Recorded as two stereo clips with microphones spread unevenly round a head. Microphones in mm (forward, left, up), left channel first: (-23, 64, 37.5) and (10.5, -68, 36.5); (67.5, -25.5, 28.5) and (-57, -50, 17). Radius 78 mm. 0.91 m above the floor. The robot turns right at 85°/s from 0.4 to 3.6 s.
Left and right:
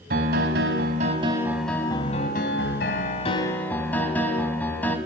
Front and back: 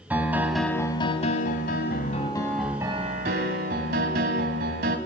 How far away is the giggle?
No giggle in this recording.